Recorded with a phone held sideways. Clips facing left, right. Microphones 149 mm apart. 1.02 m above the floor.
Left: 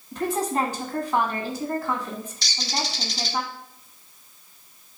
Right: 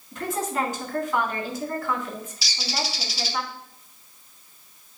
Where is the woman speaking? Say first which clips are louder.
Left 3 dB; 15° left (ahead or behind), 1.5 m.